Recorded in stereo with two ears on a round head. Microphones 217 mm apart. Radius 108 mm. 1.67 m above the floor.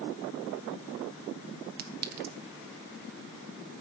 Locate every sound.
1.8 s a clink: 40° right (ahead or behind), 1.8 m